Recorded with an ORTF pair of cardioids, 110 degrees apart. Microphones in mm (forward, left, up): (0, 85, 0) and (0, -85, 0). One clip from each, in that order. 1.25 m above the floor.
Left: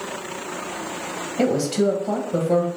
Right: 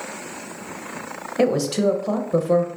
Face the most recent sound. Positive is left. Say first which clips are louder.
# right 1 dB
turn(degrees=-25)